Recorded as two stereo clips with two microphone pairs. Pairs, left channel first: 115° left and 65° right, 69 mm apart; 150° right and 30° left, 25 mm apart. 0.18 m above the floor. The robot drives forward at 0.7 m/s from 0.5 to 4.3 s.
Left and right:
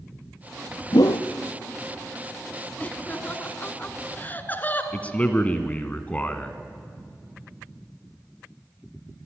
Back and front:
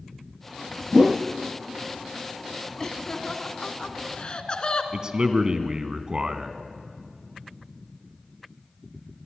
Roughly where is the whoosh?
Left.